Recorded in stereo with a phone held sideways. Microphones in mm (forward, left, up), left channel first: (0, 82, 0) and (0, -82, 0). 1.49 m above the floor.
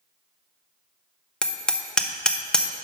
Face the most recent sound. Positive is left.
turn(degrees=5)  # may be behind; listen again after turning